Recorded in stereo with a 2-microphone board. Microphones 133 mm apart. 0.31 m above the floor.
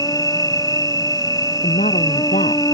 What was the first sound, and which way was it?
An insect, 25° left (ahead or behind).